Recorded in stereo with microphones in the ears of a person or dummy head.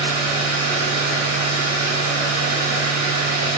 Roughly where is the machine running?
Right.